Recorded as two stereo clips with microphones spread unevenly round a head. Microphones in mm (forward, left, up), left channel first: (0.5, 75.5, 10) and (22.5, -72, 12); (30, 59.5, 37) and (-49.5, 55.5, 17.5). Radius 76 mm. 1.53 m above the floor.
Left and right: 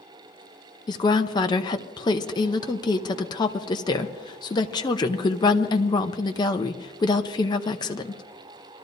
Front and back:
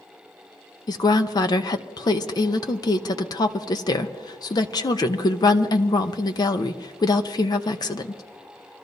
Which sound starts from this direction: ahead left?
A woman speaking, at 0.9 s.